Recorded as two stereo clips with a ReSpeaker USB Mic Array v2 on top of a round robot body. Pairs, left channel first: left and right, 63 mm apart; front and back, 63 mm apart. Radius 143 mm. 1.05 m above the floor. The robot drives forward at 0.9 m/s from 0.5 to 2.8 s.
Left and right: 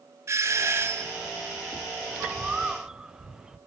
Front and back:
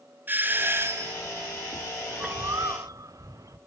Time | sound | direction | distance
0.3 | a doorbell | 125° right | 2.0 m
2.1 | a bird | 140° right | 0.6 m